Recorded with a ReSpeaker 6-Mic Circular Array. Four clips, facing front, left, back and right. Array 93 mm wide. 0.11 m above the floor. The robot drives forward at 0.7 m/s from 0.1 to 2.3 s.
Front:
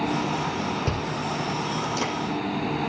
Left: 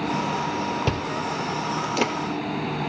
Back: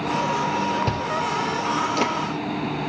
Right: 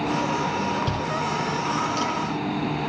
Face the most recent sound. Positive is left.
turn(degrees=120)